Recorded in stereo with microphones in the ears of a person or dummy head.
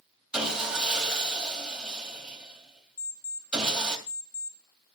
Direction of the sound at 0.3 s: Centre (ahead or behind).